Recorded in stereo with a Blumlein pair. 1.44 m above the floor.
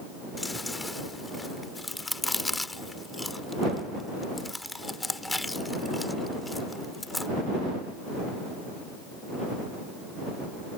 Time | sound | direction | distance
0.4 | chewing | 5° left | ?